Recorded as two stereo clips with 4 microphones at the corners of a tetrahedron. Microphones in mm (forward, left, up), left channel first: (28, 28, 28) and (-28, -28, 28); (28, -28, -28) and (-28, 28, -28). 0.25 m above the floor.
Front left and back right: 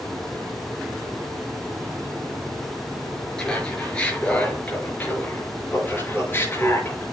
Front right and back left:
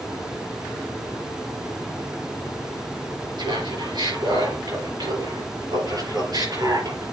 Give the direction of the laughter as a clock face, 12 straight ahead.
8 o'clock.